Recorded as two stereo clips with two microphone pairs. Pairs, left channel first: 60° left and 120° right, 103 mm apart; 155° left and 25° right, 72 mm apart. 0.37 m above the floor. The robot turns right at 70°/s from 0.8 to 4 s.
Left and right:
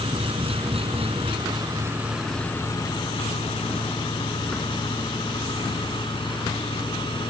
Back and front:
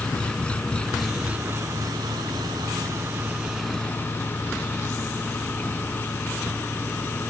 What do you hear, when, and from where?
0.0 s an engine running: 130° right; by 7.3 s 95° left